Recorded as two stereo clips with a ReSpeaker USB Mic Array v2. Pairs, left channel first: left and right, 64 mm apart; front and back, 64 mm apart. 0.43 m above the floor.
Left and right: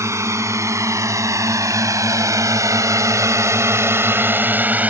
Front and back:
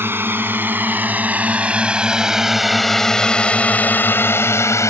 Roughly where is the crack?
No crack in this recording.